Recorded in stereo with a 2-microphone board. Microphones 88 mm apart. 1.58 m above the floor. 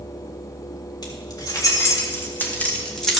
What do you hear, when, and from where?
1.0 s keys jangling: 50° left (ahead or behind), 2.5 m; by 3.2 s centre (ahead or behind), 1.8 m